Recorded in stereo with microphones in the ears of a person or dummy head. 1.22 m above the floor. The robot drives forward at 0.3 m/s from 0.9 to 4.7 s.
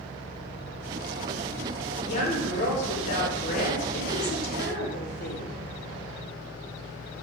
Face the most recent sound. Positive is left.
turn(degrees=55)  # may be behind; listen again after turning